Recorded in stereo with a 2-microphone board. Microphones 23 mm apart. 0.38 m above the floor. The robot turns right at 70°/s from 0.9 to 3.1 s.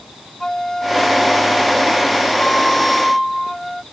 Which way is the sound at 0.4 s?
25° left.